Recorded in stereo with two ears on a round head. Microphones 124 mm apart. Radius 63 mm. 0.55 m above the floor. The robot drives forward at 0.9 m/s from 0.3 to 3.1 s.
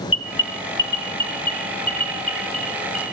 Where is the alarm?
35° left (ahead or behind), 0.9 m; by 3.0 s 10° left (ahead or behind), 3 m.